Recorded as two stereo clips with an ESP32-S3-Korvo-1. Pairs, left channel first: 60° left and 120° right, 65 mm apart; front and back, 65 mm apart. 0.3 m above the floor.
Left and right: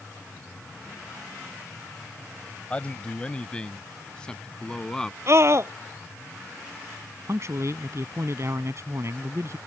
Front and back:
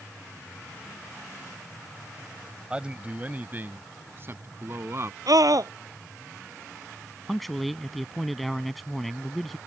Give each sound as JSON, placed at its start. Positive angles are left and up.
{"t": 2.7, "sound": "a man speaking", "azimuth_deg": 115}
{"t": 5.3, "sound": "a scream", "azimuth_deg": -160}
{"t": 7.3, "sound": "a man speaking", "azimuth_deg": -90}